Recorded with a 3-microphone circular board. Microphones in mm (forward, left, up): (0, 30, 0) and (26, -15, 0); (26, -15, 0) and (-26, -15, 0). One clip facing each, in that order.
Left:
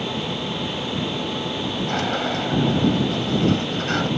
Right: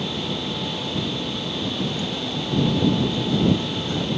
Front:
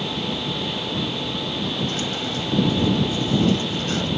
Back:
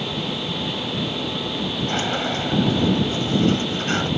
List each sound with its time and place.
1.9 s a sliding door: 130° left